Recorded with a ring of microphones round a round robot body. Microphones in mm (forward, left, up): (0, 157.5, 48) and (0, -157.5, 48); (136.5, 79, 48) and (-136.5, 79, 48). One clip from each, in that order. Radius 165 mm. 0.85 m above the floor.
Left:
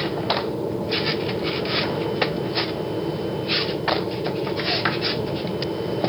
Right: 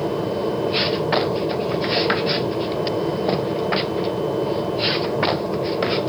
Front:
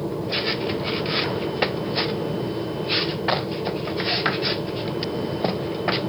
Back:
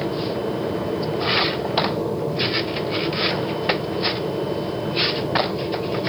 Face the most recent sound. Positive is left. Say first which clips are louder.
# right 1 dB, back 1 dB
turn(degrees=-100)